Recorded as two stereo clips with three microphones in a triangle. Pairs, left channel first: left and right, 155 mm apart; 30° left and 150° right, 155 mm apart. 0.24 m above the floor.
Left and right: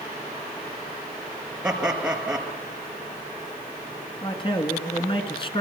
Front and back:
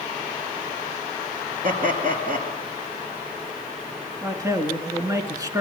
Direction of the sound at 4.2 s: 145° left.